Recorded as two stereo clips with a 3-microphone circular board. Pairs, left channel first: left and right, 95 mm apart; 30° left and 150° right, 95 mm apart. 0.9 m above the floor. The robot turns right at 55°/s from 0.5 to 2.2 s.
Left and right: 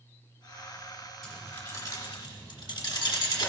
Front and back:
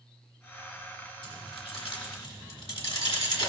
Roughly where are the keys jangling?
Ahead.